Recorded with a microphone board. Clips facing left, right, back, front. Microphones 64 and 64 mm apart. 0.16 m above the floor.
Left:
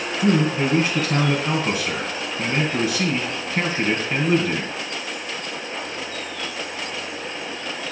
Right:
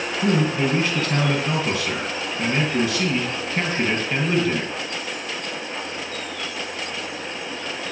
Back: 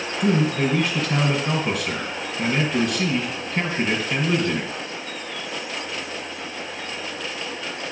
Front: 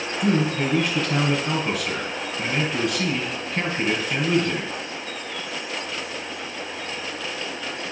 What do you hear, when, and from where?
0.2 s a man speaking: 85° left, 1.7 m